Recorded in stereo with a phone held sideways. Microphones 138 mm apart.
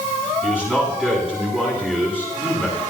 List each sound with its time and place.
0.4 s a man speaking: 10° right (ahead or behind), 10 m